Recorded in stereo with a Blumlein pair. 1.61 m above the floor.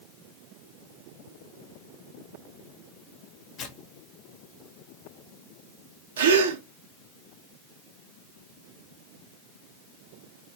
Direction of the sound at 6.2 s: 65° right.